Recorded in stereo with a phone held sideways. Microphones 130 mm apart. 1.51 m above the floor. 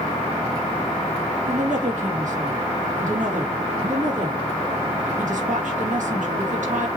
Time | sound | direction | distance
1.5 | a woman speaking | 70° right (ahead or behind) | 2.5 m